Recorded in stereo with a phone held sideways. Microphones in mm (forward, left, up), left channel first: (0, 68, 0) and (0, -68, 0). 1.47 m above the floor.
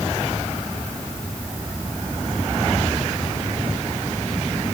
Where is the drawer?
I don't hear a drawer.